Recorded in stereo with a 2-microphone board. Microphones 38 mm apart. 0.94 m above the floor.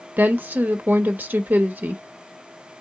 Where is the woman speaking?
50° right (ahead or behind), 0.9 m.